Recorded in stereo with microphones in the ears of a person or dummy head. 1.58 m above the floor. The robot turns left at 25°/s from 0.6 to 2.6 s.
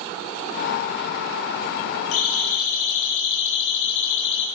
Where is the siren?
85° left, 10 m; by 4.5 s 65° left (ahead or behind), 9.5 m.